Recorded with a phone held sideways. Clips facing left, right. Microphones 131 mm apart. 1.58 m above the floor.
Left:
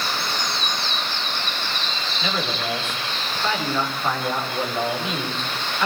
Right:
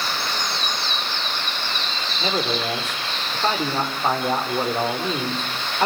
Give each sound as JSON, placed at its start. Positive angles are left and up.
{"t": 2.2, "sound": "a man speaking", "side_deg": -35, "distance_m": 5.0}